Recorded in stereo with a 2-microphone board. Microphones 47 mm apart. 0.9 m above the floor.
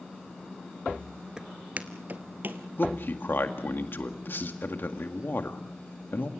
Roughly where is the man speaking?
Left.